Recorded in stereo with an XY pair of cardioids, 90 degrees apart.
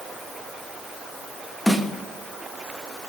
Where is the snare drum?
5° left, 1.4 m.